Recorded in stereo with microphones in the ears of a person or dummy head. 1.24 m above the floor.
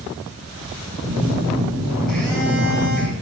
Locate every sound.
1.0 s a phone buzzing: 5° left (ahead or behind), 5 m